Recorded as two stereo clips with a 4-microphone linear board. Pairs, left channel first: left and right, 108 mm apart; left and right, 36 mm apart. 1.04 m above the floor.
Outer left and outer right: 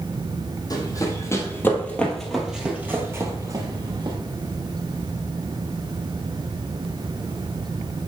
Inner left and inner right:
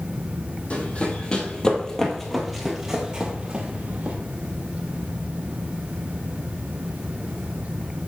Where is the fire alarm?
No fire alarm in this recording.